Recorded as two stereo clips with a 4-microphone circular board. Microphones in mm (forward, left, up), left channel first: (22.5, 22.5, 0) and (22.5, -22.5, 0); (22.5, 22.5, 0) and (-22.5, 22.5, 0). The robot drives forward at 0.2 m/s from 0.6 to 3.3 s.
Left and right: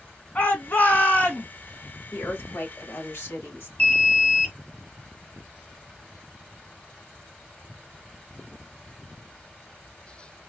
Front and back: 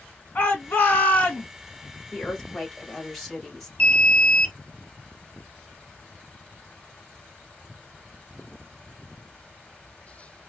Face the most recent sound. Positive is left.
turn(degrees=60)